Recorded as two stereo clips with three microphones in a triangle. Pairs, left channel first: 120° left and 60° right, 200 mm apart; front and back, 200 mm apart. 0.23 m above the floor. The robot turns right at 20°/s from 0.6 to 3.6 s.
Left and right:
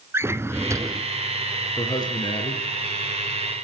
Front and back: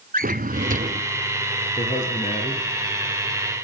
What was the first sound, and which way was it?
A drawer, 135° right.